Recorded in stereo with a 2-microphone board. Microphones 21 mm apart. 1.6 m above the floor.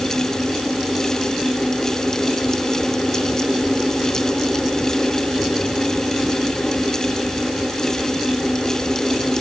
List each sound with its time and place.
Only background noise.